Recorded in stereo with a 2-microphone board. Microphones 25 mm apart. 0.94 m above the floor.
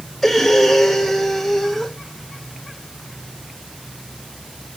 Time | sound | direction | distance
0.2 | breathing | 5° left (ahead or behind) | 1.2 m